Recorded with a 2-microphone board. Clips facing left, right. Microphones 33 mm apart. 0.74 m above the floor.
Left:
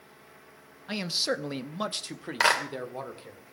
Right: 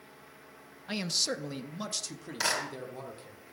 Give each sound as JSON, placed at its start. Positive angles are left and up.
{"t": 0.9, "sound": "a man speaking", "side_deg": 5, "distance_m": 0.5}
{"t": 2.4, "sound": "a clap", "side_deg": 45, "distance_m": 2.0}